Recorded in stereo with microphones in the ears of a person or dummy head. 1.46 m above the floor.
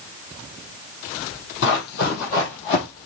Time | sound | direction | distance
1.6 | running footsteps | 55° left (ahead or behind) | 2.5 m